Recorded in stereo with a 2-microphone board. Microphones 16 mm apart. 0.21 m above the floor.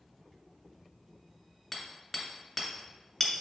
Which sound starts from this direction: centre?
Hammering, at 1.7 s.